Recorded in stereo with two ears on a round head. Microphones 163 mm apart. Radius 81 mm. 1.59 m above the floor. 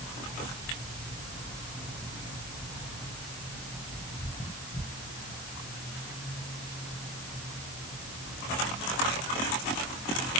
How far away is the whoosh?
No whoosh in this recording.